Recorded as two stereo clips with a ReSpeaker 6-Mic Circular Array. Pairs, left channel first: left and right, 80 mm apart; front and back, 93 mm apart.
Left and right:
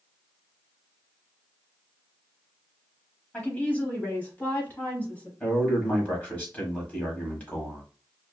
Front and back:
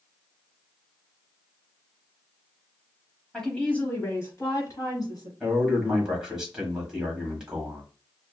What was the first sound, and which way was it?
A woman speaking, 75° left.